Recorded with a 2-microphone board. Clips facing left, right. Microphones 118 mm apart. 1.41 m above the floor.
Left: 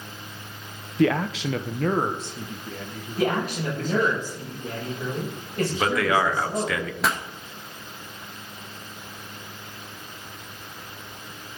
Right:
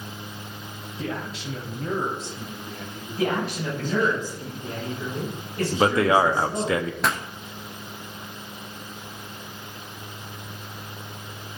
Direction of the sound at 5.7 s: 25° right (ahead or behind).